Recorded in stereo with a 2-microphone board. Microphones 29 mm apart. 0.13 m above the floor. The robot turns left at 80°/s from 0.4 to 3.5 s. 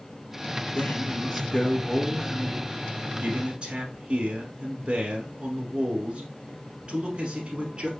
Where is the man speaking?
100° left, 1.4 m; by 7.9 s 120° right, 1.4 m.